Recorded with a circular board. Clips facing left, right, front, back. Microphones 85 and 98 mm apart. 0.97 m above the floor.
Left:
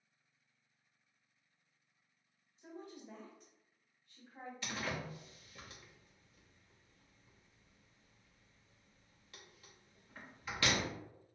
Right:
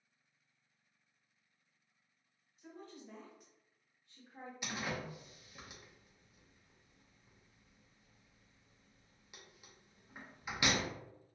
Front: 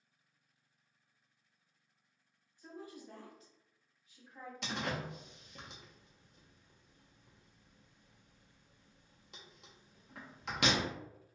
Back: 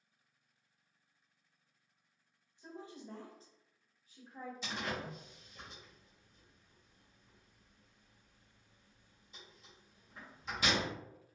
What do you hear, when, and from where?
2.6 s a woman speaking: 125° left, 0.9 m; by 4.5 s 135° right, 1.2 m
4.6 s a door slam: 15° right, 0.6 m